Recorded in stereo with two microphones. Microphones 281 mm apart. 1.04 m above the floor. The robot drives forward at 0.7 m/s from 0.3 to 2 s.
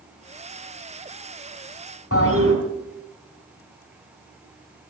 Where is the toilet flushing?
50° left (ahead or behind), 3 m.